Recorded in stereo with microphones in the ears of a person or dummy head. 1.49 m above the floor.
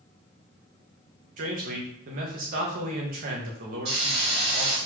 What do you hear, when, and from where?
1.4 s a man speaking: 45° right (ahead or behind), 1.1 m
3.9 s a hiss: 60° right (ahead or behind), 2 m